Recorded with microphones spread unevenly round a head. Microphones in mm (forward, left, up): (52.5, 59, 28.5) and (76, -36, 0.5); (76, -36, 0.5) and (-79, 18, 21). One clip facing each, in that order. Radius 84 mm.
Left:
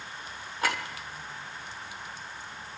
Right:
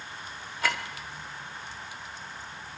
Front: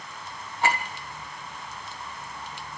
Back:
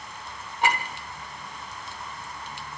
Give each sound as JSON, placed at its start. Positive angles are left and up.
{"t": 0.6, "sound": "a clink", "azimuth_deg": 90, "distance_m": 3.0}